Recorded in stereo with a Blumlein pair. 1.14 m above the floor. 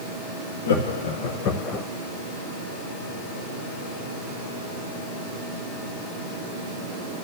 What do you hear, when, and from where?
0.7 s laughter: 65° left, 2 m; by 1.9 s straight ahead, 0.7 m